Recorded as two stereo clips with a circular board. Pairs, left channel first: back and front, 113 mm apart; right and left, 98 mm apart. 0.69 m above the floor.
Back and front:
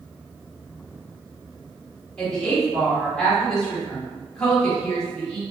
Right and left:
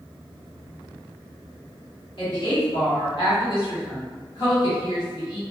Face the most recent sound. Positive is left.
turn(degrees=-100)